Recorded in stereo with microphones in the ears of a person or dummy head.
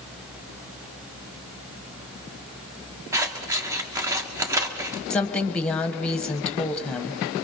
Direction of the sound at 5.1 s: 5° left (ahead or behind).